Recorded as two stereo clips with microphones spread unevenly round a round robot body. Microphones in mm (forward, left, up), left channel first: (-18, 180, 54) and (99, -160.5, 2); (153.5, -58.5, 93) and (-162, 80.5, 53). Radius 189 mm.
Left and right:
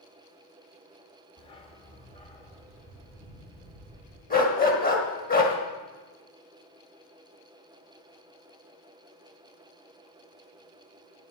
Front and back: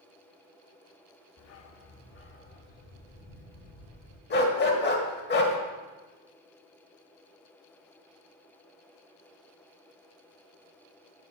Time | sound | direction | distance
1.4 | a dog barking | 30° left | 0.7 m
4.3 | a dog barking | 40° left | 1.6 m